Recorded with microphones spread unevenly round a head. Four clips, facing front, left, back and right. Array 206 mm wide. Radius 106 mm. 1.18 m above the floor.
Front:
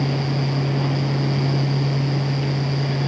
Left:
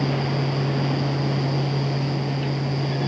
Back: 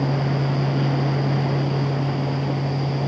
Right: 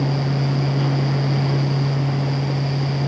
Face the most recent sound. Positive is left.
No sound to turn to.